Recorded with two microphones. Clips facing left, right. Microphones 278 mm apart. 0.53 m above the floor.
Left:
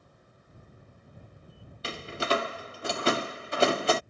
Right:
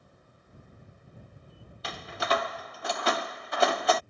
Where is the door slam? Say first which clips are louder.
Left 2 dB; 30° left (ahead or behind).